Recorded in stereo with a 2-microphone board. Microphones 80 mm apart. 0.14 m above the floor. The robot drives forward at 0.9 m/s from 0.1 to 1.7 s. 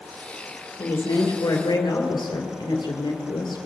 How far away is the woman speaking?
About 2.5 m.